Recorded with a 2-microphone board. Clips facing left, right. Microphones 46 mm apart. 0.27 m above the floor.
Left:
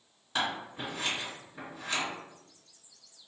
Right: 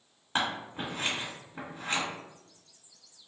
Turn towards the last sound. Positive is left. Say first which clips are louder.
# right 1 dB
turn(degrees=-35)  # may be behind; listen again after turning